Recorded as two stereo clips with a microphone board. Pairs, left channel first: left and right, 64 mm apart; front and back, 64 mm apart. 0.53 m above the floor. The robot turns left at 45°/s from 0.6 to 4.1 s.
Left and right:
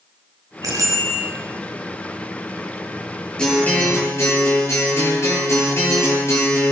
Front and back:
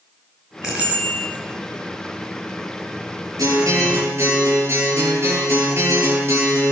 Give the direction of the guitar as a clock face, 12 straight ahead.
6 o'clock.